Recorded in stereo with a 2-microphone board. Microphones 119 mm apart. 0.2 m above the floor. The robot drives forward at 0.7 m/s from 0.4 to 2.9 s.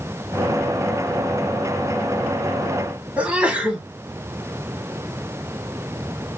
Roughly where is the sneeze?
Centre.